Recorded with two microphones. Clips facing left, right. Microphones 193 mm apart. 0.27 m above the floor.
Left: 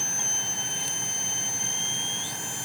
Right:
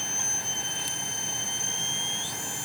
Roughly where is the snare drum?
I don't hear a snare drum.